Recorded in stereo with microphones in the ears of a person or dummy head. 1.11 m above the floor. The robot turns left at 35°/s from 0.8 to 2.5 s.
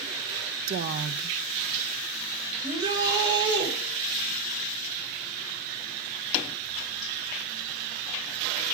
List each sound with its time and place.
0.7 s a woman speaking: 55° right (ahead or behind), 0.6 m; by 1.4 s 75° right (ahead or behind), 0.6 m
2.6 s a shout: 25° right (ahead or behind), 4 m